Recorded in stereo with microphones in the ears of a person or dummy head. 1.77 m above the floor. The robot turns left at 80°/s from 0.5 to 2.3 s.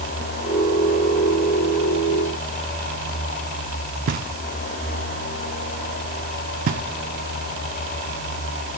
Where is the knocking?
40° right (ahead or behind), 0.6 m.